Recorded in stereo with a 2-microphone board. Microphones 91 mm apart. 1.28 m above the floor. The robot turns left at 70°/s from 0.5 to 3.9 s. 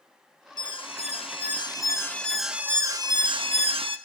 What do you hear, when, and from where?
0.6 s an alarm: 125° left, 1.2 m; by 4.0 s 105° right, 1.2 m